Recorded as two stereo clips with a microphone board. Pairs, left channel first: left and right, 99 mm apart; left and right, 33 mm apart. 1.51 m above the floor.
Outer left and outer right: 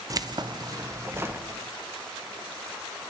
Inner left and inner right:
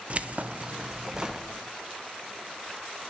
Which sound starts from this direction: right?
Keys jangling, at 0.1 s.